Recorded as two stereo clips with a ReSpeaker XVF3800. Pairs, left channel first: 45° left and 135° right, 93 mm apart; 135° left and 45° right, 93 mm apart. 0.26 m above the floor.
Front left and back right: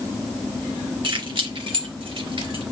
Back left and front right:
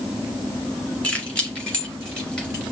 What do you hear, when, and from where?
1.0 s keys jangling: 150° right, 2 m; by 2.6 s 145° right, 3.5 m